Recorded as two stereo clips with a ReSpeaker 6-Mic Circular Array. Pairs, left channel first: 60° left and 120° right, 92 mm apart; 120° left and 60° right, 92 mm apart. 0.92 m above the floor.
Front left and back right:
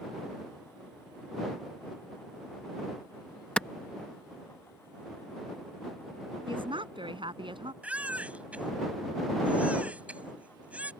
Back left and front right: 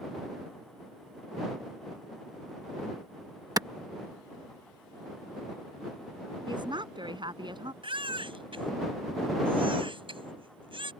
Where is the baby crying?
45° right.